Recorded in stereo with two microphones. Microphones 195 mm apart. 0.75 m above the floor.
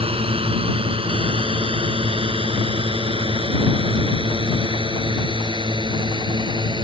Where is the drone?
25° right (ahead or behind); by 6.8 s 20° right (ahead or behind).